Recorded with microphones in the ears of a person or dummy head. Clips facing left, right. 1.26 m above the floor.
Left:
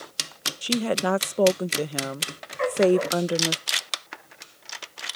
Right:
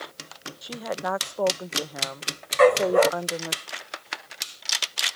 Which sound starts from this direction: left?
A woman speaking, at 0.6 s.